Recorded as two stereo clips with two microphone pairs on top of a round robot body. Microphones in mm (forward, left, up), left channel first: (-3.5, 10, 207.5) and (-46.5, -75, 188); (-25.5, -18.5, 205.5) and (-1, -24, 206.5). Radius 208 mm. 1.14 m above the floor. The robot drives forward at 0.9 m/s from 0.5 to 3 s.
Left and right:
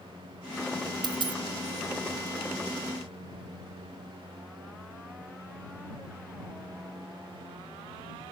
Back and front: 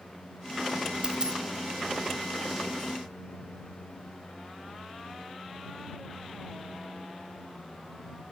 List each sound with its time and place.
1.0 s a dropped coin: 65° right; by 1.4 s 80° right